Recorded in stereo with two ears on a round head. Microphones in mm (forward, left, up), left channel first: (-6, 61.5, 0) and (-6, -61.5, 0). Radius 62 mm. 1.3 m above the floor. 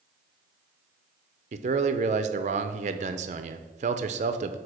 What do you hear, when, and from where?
1.5 s a man speaking: 50° right (ahead or behind), 0.6 m